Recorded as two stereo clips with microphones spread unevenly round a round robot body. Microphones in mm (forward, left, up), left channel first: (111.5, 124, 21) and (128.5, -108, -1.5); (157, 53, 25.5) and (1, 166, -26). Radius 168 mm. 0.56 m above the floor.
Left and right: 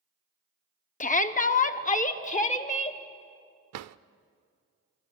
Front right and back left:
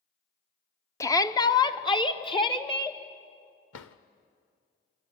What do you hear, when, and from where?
1.0 s a shout: 50° left, 1.1 m; by 3.0 s 35° left, 2.5 m
3.7 s a drawer: 75° right, 0.6 m